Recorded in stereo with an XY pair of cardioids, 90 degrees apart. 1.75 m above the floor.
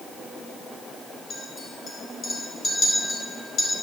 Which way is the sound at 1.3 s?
45° left.